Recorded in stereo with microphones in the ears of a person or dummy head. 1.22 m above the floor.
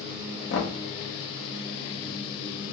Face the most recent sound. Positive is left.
turn(degrees=80)